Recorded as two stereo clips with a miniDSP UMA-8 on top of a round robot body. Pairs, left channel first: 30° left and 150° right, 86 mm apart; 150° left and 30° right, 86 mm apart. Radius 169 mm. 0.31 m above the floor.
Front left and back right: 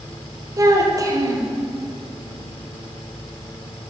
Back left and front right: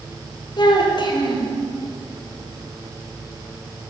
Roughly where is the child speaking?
Behind.